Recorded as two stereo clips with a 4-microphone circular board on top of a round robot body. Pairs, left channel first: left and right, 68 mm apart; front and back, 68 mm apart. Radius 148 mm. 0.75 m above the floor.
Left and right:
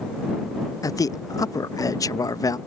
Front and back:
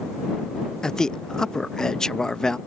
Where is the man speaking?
80° left.